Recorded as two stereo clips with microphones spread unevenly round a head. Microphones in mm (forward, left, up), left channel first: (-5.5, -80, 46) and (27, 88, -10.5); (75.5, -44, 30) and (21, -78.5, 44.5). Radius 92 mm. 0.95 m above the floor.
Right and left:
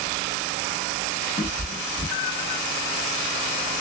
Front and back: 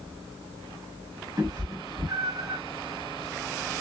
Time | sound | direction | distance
1.4 | a cat meowing | 135° right | 1.4 m